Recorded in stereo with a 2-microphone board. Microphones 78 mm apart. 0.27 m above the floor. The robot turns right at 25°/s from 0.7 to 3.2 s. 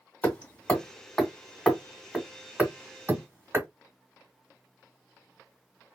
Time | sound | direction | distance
0.2 | hammering | 20° left (ahead or behind) | 1.3 m